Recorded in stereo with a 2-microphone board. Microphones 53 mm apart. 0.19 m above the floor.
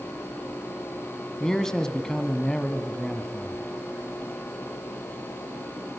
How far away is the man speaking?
About 1.6 m.